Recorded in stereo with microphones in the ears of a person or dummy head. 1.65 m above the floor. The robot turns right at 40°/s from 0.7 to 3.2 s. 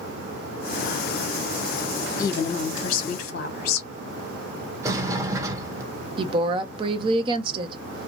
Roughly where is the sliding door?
Centre.